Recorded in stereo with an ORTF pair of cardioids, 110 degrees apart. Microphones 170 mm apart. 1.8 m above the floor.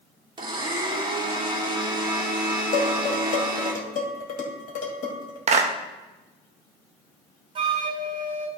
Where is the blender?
30° right, 2.5 m.